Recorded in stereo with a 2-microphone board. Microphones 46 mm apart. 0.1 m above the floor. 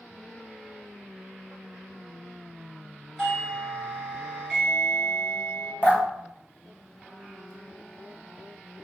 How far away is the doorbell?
About 1.8 m.